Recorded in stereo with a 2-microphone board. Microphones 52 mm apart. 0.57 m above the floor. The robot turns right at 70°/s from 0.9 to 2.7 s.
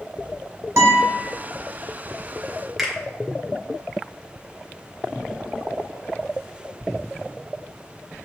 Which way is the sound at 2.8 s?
Centre (ahead or behind).